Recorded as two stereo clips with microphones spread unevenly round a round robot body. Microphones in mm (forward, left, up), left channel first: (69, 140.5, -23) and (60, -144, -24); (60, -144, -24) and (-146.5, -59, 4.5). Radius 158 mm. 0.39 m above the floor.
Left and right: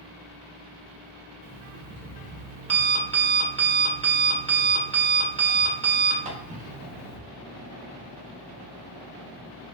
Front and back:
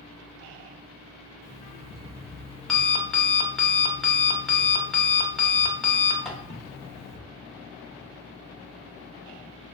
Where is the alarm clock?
85° right, 0.5 m.